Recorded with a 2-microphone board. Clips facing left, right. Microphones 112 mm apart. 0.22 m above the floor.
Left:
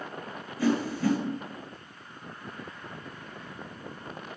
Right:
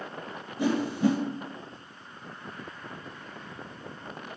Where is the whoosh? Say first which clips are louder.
Right 1 dB; 20° right (ahead or behind), 0.9 m.